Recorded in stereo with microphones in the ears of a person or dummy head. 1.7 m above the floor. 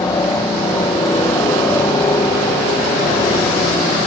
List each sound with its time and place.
0.0 s a helicopter: 15° left (ahead or behind)